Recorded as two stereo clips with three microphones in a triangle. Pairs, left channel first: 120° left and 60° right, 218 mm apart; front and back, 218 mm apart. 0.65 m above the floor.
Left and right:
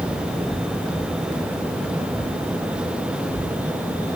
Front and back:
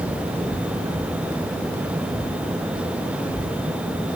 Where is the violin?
No violin in this recording.